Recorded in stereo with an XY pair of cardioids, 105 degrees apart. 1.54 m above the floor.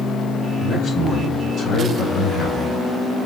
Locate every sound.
0.6 s a man speaking: 50° left, 5 m; by 3.2 s 30° left, 3.5 m